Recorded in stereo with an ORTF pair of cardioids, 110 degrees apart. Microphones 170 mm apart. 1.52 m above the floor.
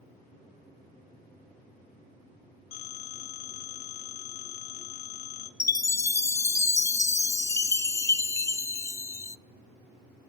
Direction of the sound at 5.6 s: 20° left.